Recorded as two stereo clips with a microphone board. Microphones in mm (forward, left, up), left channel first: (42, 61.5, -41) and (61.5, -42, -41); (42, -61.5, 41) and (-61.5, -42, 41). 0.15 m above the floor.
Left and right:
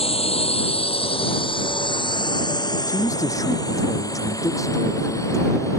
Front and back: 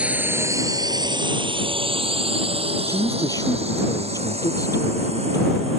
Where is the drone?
90° left; by 5.8 s 160° left.